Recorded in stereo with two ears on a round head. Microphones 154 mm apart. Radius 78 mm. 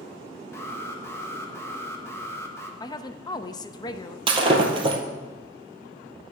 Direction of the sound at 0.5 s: 15° left (ahead or behind).